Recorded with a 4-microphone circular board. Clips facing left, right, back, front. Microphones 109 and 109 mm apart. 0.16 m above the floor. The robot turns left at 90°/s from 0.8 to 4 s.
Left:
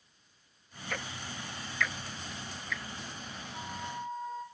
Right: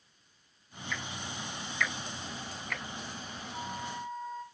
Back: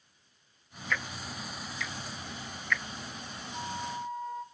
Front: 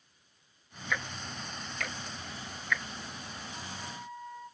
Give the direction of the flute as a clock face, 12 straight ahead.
5 o'clock.